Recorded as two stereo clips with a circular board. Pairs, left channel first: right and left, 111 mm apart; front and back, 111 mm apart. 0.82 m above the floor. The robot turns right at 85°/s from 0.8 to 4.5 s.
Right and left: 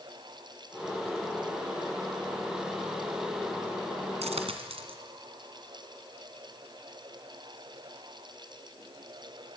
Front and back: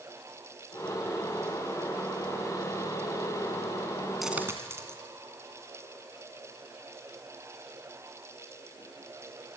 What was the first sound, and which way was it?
A dropped coin, 90° left.